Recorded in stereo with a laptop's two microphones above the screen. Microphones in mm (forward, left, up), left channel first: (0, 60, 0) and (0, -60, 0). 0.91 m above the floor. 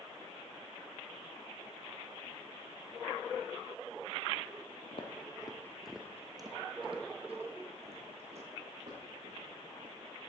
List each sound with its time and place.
4.9 s footsteps: 55° left (ahead or behind), 1.4 m; by 10.2 s 65° right (ahead or behind), 5.5 m